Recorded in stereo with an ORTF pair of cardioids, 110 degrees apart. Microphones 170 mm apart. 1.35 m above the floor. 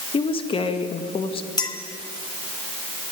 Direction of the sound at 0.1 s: 30° left.